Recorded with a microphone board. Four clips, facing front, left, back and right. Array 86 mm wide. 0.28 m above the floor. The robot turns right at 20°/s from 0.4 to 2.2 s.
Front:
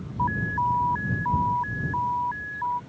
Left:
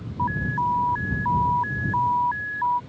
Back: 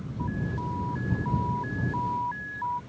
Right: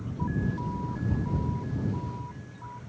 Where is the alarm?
45° left; by 2.8 s 80° left.